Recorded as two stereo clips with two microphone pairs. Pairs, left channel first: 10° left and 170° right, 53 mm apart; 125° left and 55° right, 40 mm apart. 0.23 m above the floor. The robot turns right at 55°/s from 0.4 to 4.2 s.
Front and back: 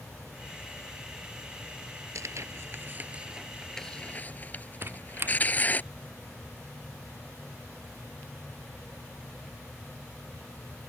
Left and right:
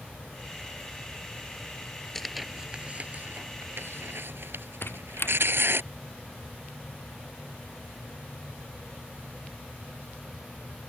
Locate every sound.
2.1 s tearing paper: 160° right; by 5.8 s 45° right
4.8 s a squeak: 145° left